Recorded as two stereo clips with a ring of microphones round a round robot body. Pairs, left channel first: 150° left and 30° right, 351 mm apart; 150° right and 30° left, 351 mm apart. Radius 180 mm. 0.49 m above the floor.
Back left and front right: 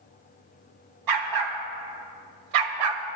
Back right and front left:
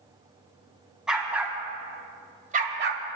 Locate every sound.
1.1 s a dog barking: 60° right, 1.8 m; by 3.0 s 25° right, 0.9 m